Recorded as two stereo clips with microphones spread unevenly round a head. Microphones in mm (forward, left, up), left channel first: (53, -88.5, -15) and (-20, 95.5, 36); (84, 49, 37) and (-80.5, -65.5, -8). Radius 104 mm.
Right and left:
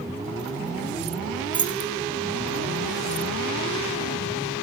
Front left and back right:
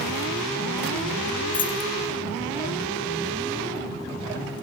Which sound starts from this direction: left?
Keys jangling, at 1.5 s.